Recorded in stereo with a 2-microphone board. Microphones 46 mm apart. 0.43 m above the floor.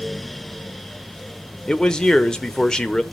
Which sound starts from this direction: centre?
A man speaking, at 1.7 s.